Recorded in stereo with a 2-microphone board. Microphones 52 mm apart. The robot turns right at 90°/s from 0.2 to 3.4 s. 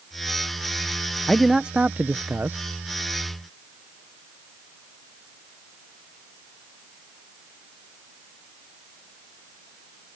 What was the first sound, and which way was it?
A man speaking, 170° left.